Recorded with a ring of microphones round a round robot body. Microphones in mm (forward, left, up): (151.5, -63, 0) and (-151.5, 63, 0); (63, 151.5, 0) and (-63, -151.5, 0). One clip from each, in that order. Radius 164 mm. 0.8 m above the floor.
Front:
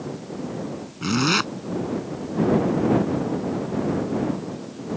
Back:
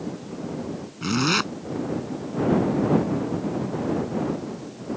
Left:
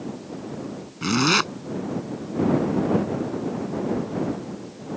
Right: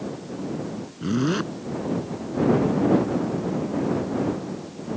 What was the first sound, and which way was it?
A zipper, 70° left.